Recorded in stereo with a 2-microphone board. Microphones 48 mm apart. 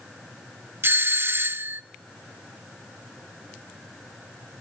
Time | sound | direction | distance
0.8 | a doorbell | 50° right (ahead or behind) | 0.8 m